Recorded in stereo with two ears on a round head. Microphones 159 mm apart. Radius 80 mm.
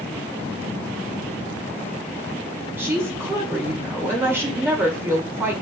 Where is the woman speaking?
15° right (ahead or behind), 1.8 m.